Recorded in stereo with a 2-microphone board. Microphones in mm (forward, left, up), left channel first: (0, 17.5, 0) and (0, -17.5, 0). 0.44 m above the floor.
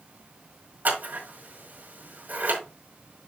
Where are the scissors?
55° right (ahead or behind), 4 m.